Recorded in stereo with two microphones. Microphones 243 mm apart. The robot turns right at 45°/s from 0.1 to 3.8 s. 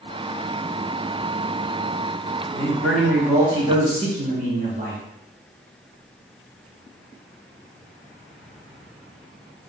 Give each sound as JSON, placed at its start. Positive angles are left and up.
{"t": 2.5, "sound": "a man speaking", "azimuth_deg": 160, "distance_m": 1.7}